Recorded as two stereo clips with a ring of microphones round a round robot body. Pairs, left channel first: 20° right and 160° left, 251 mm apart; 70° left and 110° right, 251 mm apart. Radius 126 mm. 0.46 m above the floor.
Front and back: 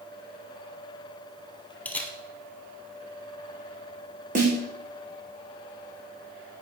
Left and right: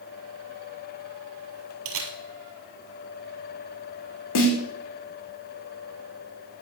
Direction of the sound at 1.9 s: 105° right.